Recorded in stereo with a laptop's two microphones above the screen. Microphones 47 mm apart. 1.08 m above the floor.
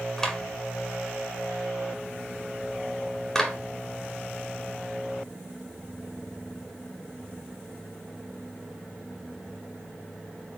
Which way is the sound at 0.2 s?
10° left (ahead or behind).